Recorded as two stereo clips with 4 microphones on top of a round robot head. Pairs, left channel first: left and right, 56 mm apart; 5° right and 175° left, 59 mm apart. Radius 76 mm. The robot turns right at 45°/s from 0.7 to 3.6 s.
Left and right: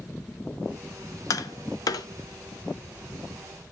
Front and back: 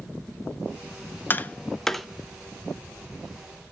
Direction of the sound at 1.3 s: 55° left.